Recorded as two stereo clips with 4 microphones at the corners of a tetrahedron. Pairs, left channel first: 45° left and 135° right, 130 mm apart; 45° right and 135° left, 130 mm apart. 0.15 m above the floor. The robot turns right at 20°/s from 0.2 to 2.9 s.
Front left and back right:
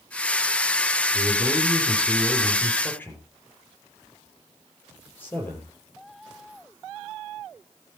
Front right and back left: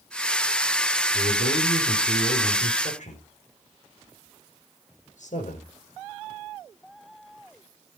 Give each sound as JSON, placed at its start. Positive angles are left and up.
{"t": 1.1, "sound": "a man speaking", "azimuth_deg": -65, "distance_m": 5.5}